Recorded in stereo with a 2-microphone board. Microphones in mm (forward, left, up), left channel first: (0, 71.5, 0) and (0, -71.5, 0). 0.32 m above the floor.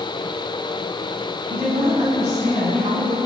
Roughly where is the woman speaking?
Right.